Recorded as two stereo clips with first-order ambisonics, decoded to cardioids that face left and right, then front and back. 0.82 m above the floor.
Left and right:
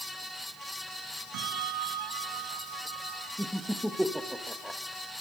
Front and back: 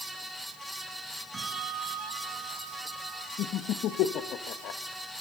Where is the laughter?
Straight ahead, 0.9 m.